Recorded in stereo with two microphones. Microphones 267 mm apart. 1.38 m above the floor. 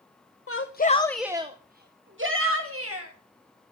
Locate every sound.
0.5 s a shout: 55° left (ahead or behind), 0.8 m; by 3.1 s 60° right (ahead or behind), 2.0 m